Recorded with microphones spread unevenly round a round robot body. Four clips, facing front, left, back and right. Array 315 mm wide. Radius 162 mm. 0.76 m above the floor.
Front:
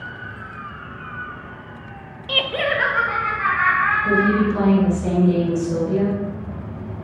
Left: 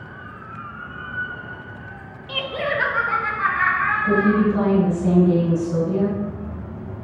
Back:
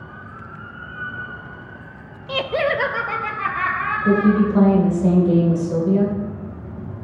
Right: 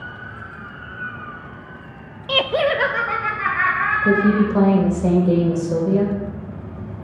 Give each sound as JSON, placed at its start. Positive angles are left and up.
{"t": 2.3, "sound": "laughter", "azimuth_deg": -90, "distance_m": 0.5}
{"t": 4.0, "sound": "a woman speaking", "azimuth_deg": -120, "distance_m": 2.5}